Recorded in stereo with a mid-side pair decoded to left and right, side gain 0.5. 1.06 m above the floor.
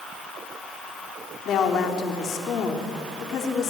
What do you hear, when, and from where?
1.4 s a woman speaking: 60° left, 3 m